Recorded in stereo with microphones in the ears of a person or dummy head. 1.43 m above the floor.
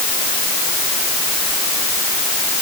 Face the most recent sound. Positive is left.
No sound to turn to.